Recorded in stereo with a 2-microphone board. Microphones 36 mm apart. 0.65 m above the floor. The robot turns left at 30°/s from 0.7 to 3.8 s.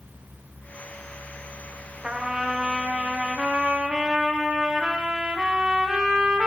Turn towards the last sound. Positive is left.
turn(degrees=-20)  # may be behind; listen again after turning